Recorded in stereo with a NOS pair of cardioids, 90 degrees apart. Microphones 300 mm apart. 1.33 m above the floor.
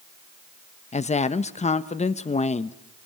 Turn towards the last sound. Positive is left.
turn(degrees=20)